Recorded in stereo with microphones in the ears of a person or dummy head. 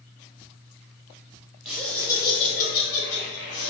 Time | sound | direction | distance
1.6 | laughter | centre (ahead or behind) | 1.1 m